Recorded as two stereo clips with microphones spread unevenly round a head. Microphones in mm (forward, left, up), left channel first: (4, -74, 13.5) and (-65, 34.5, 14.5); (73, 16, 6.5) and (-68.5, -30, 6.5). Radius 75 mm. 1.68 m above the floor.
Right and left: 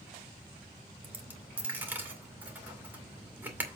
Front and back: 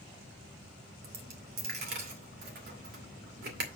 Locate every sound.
1.0 s a dropped coin: 165° right, 2.5 m